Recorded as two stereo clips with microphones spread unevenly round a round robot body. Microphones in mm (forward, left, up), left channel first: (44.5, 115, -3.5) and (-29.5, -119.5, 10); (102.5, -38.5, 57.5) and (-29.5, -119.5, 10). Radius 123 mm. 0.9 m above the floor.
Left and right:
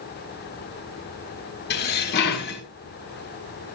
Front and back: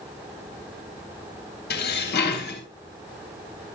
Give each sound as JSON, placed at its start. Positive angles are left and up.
{"t": 1.7, "sound": "dishes clattering", "azimuth_deg": 20, "distance_m": 4.0}